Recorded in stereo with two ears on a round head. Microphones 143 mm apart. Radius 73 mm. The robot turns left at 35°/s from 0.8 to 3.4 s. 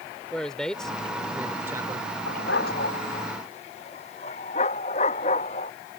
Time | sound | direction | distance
0.3 | a man speaking | 5° left | ?
2.3 | a dog barking | 80° left | ?